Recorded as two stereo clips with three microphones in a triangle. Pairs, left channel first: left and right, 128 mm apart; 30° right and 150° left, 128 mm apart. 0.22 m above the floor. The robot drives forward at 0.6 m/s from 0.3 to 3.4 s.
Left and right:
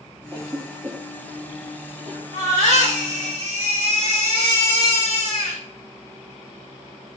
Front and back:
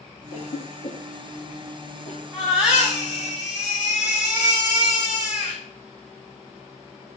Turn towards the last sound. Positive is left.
turn(degrees=-125)